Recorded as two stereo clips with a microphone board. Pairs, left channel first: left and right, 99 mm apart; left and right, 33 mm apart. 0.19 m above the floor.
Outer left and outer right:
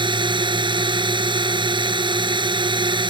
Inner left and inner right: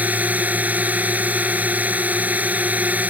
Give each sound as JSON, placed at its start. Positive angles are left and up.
{"t": 0.0, "sound": "a drone", "side_deg": -55}